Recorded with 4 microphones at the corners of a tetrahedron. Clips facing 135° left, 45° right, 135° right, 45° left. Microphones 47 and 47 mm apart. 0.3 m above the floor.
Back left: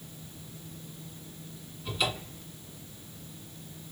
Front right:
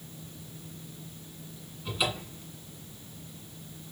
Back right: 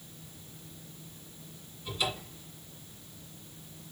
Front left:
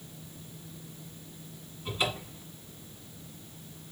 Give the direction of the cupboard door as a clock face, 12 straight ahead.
11 o'clock.